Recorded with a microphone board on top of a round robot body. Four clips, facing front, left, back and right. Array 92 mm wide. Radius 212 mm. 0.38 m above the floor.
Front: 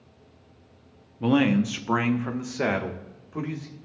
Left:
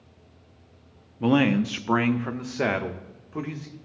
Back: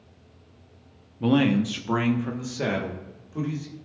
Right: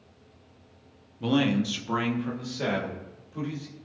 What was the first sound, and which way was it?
A man speaking, 70° left.